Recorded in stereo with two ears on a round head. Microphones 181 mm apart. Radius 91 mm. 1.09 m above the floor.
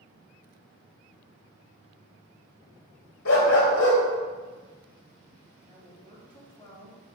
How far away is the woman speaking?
About 2.5 m.